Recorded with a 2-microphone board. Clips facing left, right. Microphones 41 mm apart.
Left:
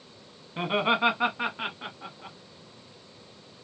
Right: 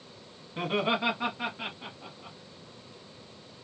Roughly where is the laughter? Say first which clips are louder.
Left 3 dB; left.